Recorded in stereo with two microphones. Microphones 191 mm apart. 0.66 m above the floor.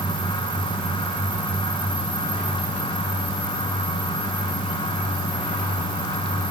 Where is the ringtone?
No ringtone in this recording.